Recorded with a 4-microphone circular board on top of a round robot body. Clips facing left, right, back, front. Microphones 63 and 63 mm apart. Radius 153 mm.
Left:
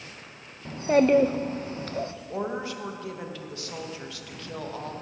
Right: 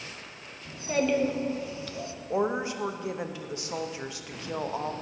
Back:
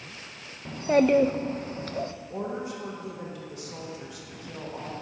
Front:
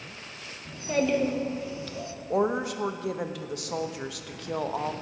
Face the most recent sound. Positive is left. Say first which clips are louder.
# right 6 dB, front 12 dB
turn(degrees=-20)